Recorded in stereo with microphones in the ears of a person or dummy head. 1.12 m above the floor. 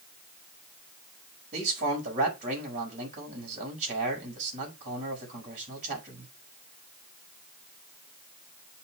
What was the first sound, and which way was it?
A man speaking, 45° right (ahead or behind).